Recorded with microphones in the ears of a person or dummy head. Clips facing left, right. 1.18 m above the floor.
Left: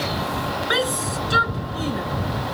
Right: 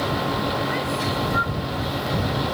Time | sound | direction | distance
0.7 | a shout | 85° left | ?